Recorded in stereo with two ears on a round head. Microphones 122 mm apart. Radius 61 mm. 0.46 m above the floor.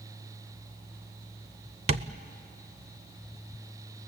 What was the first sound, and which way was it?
Tapping, 45° right (ahead or behind).